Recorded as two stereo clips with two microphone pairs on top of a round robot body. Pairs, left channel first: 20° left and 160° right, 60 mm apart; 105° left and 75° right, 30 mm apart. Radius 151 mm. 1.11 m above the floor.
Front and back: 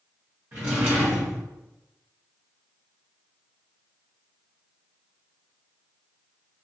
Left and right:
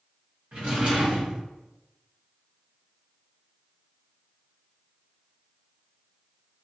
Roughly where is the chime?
I don't hear a chime.